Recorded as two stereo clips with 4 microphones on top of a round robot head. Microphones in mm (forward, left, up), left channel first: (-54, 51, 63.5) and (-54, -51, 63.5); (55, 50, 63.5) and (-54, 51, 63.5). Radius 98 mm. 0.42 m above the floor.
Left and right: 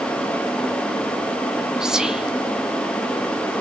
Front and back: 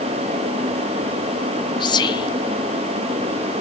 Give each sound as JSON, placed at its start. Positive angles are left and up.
{"t": 1.8, "sound": "whispering", "azimuth_deg": -10, "distance_m": 1.1}